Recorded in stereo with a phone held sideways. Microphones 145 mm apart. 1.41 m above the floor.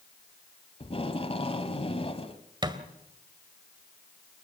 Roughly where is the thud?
Right.